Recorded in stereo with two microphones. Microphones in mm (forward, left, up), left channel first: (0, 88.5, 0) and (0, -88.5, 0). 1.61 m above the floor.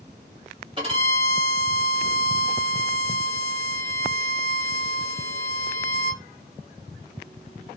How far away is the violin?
About 1.9 m.